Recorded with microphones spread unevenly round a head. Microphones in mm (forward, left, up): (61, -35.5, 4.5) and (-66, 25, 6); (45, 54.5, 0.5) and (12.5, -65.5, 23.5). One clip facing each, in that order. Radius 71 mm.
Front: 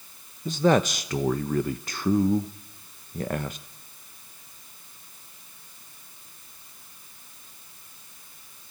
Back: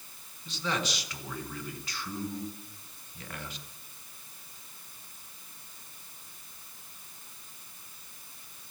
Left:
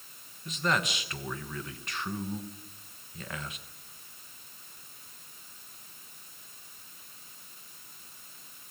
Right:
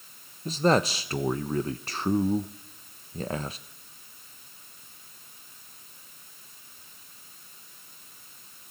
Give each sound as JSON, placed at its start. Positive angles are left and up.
{"t": 0.5, "sound": "a man speaking", "azimuth_deg": -45, "distance_m": 1.0}